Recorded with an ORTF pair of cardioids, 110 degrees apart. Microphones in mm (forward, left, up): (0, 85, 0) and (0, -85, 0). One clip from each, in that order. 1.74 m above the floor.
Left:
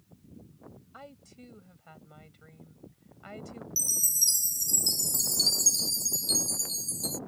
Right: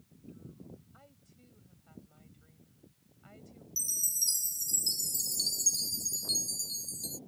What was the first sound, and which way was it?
A woman speaking, 70° left.